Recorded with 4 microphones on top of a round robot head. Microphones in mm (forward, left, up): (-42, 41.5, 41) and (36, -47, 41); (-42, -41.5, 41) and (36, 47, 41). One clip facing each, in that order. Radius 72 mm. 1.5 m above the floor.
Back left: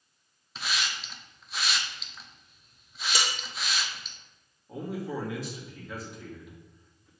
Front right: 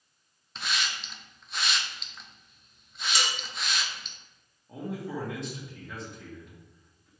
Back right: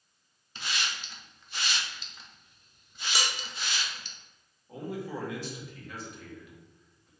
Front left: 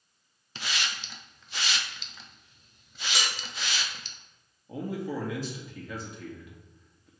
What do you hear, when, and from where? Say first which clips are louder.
0.6 s a hiss: even, front left 1 dB; 45° left, 0.7 m
3.1 s dishes clattering: even, even; 145° left, 1.1 m
4.7 s a man speaking: back left 1 dB, front left 3 dB; 45° left, 2.0 m